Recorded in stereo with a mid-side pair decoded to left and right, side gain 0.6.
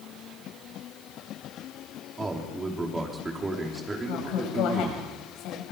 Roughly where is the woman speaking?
Left.